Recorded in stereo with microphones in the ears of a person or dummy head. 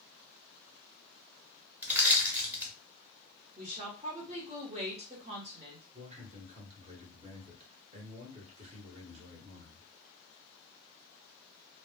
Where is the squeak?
I don't hear a squeak.